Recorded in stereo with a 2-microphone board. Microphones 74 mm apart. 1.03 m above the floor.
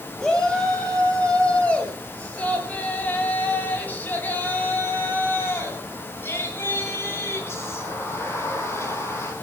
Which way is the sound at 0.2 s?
10° left (ahead or behind).